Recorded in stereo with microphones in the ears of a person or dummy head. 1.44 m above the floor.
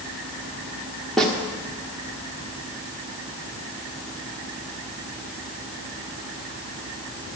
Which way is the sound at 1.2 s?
5° left (ahead or behind).